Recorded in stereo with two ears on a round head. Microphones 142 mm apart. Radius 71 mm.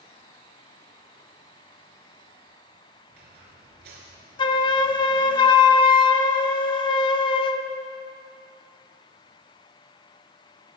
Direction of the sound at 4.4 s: 30° left (ahead or behind).